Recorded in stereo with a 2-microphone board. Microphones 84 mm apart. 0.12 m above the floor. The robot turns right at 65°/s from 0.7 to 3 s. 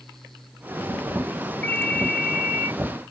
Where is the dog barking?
I don't hear a dog barking.